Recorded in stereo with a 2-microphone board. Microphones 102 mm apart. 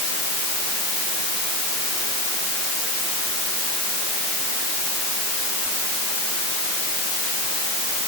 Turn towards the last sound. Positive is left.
No sound to turn to.